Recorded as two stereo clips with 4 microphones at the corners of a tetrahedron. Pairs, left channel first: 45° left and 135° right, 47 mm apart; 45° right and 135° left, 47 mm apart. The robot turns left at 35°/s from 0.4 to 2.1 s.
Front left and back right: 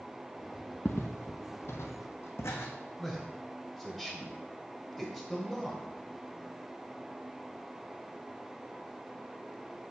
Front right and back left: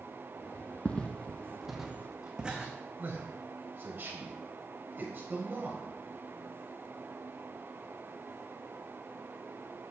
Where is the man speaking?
135° left, 1.5 m.